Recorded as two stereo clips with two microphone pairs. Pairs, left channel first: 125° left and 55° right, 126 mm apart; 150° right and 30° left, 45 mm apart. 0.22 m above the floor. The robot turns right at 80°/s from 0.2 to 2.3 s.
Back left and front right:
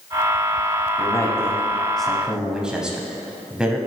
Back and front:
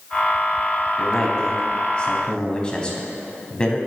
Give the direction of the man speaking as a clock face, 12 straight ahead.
8 o'clock.